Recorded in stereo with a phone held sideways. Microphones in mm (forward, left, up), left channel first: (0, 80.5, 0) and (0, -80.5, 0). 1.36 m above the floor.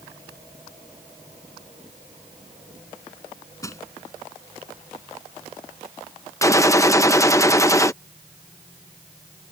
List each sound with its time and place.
3.6 s crushing: 20° left (ahead or behind)
6.4 s a gunshot: 20° left (ahead or behind)